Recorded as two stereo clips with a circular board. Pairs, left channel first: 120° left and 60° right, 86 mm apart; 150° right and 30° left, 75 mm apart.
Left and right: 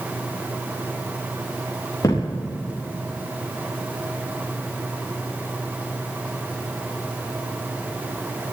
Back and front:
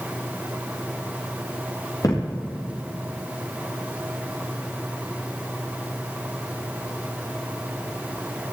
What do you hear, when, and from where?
2.0 s a thud: 170° left, 4.5 m